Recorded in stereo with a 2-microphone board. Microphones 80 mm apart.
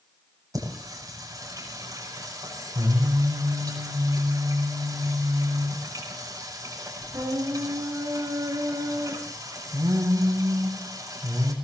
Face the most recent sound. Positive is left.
turn(degrees=-45)  # may be behind; listen again after turning